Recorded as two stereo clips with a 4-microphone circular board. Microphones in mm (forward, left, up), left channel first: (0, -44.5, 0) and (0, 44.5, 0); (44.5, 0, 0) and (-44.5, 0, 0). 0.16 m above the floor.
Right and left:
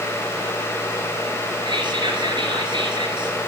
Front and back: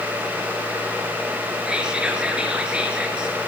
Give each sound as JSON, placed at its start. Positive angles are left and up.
{"t": 1.7, "sound": "whispering", "azimuth_deg": 100, "distance_m": 3.0}